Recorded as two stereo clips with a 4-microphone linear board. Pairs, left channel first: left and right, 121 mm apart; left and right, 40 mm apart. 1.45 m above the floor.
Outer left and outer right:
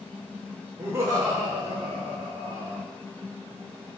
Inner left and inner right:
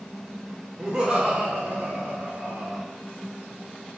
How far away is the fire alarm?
No fire alarm in this recording.